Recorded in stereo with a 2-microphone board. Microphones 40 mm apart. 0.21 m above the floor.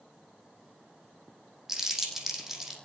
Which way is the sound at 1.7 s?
5° right (ahead or behind).